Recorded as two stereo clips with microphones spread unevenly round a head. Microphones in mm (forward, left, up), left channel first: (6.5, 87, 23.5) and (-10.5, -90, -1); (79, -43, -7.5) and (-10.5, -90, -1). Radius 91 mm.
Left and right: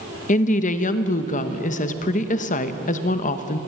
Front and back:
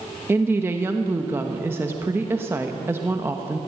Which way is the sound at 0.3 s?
130° left.